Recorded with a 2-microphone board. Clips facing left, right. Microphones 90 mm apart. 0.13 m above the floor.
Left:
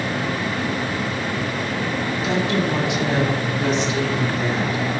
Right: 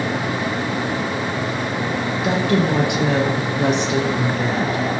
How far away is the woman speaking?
About 1.8 m.